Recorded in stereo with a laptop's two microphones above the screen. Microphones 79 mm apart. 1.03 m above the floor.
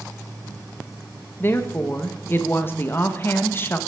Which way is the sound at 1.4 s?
30° left (ahead or behind).